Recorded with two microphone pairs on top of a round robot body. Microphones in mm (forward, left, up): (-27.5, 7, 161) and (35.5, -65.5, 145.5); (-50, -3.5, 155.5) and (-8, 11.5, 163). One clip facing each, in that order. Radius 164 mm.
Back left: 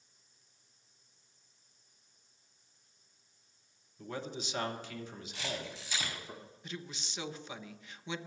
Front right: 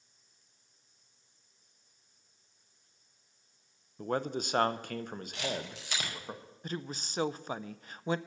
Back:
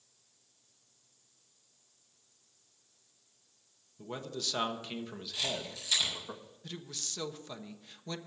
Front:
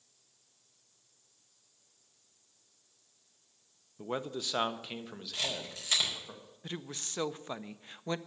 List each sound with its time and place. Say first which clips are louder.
4.0 s a man speaking: front right 8 dB, front 4 dB; 40° right, 0.9 m; by 6.3 s 85° right, 1.8 m
5.3 s a camera shutter: front right 3 dB, even; 25° right, 4.5 m
6.6 s a woman speaking: front right 7 dB, front 4 dB; 40° right, 0.7 m